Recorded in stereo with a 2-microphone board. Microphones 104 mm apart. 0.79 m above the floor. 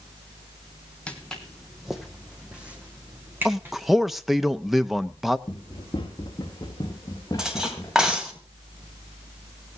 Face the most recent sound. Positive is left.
turn(degrees=-5)  # may be behind; listen again after turning